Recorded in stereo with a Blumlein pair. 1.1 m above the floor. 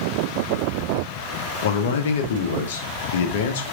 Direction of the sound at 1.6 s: 55° left.